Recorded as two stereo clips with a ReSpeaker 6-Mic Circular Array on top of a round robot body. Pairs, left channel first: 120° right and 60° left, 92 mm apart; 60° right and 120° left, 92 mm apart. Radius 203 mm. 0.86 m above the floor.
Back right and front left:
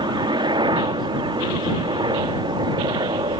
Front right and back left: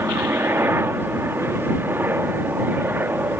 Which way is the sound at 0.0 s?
60° left.